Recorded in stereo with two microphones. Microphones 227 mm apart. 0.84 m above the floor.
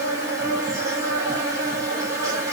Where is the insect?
15° right (ahead or behind), 1.1 m.